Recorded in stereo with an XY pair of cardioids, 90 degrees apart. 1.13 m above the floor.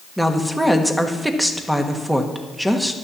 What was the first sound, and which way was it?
A woman speaking, 10° right.